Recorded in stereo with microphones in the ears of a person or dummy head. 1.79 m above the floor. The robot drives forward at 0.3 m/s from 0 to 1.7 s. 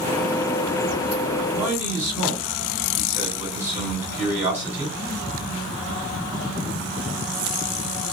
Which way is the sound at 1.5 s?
15° right (ahead or behind).